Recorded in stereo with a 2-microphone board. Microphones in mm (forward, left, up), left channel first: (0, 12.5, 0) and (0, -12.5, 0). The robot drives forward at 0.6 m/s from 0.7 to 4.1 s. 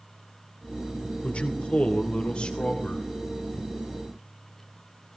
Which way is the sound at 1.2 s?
55° left (ahead or behind).